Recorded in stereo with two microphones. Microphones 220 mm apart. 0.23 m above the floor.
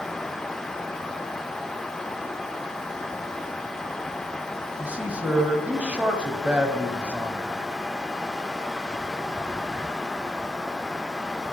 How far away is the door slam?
I don't hear a door slam.